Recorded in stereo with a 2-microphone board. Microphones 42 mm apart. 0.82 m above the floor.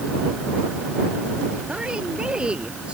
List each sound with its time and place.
1.7 s a woman speaking: 20° right (ahead or behind)